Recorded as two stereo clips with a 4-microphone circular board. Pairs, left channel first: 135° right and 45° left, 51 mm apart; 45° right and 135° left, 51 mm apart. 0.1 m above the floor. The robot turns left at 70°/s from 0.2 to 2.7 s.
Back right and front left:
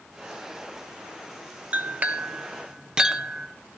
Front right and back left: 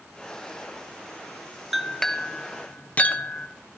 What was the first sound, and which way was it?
A clink, 50° left.